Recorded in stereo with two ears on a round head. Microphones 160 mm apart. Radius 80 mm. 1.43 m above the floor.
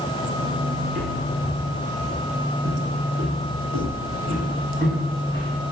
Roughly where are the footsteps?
Right.